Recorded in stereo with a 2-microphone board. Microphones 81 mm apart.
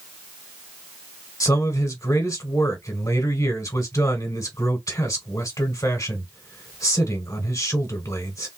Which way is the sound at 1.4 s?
45° left (ahead or behind).